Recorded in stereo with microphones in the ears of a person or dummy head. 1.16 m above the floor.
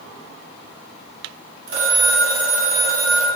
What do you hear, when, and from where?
1.7 s a phone ringing: 70° right (ahead or behind), 2.5 m